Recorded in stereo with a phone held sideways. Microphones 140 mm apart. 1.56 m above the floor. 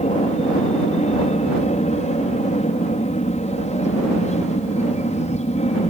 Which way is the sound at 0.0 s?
55° left (ahead or behind).